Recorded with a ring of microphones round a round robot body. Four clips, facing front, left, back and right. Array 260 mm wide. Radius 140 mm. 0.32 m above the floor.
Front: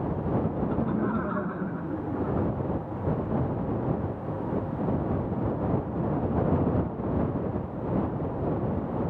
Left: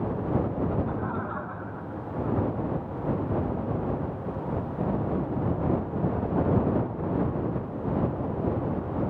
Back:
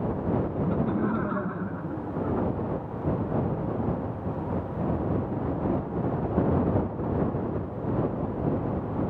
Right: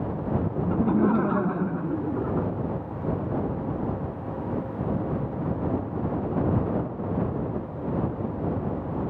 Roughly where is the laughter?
Right.